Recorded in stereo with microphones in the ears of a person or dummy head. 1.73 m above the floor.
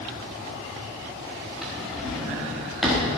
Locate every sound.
1.6 s a drawer: 5° right (ahead or behind), 1.4 m